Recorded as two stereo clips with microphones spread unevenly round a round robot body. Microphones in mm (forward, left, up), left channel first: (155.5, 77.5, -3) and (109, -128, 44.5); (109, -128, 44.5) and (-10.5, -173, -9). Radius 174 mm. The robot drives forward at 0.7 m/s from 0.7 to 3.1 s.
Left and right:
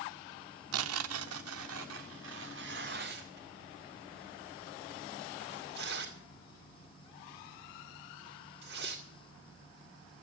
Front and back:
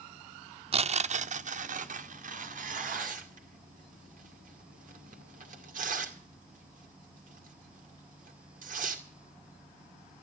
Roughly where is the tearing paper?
Behind right.